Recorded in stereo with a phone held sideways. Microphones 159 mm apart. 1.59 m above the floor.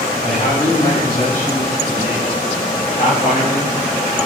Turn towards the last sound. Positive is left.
turn(degrees=50)  # may be behind; listen again after turning